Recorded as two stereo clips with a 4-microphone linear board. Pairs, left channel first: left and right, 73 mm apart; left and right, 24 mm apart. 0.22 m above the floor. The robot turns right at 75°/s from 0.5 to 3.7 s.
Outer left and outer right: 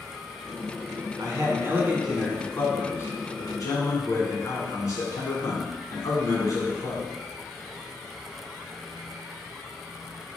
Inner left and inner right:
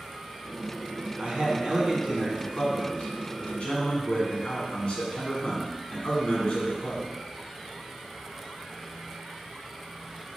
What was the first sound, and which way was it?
A man speaking, 75° right.